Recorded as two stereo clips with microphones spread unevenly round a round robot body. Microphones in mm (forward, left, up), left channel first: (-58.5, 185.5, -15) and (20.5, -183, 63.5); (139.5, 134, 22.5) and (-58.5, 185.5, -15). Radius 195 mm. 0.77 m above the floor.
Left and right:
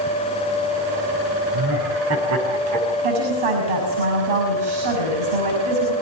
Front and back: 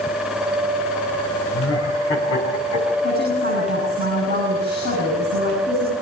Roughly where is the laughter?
Ahead.